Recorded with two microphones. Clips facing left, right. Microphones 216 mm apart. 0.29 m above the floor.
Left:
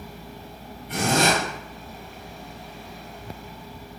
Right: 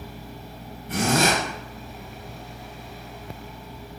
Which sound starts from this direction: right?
A zipper, at 0.9 s.